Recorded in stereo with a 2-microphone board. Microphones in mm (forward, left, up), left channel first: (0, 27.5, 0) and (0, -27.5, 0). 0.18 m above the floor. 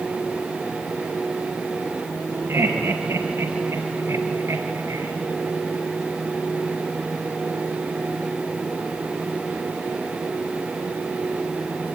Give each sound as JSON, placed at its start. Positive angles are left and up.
{"t": 2.5, "sound": "laughter", "side_deg": -50, "distance_m": 3.5}